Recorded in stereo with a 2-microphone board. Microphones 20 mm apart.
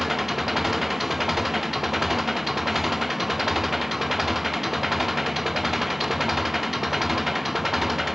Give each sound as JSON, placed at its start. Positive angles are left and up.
{"t": 0.0, "sound": "an engine running", "side_deg": -10}